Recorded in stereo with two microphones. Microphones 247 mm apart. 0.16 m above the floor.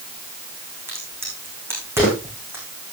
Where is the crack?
10° right (ahead or behind), 6.5 m.